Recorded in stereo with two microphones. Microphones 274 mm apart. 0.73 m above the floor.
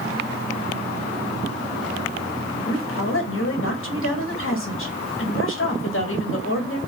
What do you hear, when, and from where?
2.7 s a woman speaking: 50° left (ahead or behind), 0.8 m